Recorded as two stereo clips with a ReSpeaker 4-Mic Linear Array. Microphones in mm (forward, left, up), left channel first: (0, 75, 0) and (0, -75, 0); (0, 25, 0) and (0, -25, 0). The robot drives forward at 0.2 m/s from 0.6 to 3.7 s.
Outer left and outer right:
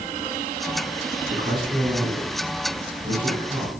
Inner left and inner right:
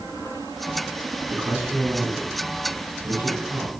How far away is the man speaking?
About 3.5 m.